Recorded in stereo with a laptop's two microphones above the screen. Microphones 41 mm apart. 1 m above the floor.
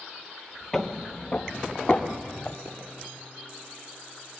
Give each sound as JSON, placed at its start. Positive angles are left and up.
{"t": 0.7, "sound": "footsteps", "side_deg": 15, "distance_m": 1.0}
{"t": 2.6, "sound": "a pop", "side_deg": -45, "distance_m": 9.0}